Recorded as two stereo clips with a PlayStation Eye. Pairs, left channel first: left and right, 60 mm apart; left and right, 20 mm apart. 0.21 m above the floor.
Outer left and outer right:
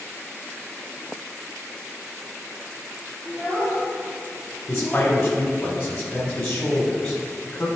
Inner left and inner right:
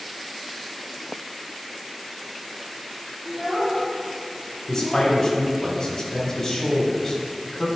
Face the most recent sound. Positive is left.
turn(degrees=15)  # may be behind; listen again after turning